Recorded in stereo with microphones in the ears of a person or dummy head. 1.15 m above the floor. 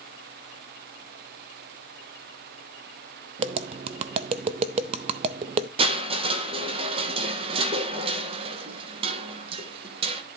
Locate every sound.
3.4 s tapping: 30° right (ahead or behind), 0.6 m
5.8 s crushing: 25° right (ahead or behind), 1.2 m